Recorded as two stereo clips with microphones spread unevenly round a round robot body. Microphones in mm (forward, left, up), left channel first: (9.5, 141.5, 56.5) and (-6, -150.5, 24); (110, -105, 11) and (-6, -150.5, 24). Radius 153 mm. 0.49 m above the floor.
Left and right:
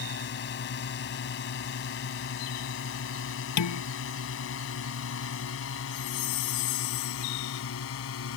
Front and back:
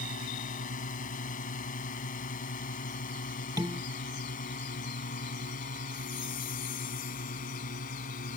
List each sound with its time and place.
0.0 s a drone: 30° left; by 8.4 s 40° left
3.6 s dishes clattering: 125° left
5.9 s a chime: 55° left